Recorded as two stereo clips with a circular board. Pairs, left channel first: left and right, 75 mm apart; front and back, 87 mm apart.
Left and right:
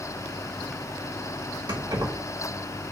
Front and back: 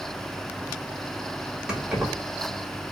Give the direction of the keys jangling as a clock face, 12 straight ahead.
3 o'clock.